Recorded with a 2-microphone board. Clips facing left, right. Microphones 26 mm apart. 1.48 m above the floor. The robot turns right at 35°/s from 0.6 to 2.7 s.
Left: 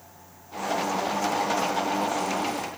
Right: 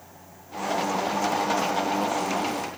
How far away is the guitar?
No guitar in this recording.